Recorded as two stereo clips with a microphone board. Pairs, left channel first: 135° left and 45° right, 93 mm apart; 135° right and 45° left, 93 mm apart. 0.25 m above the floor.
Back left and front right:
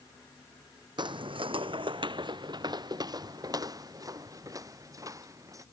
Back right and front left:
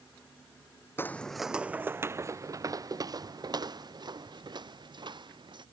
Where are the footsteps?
70° right; by 5.7 s 10° left.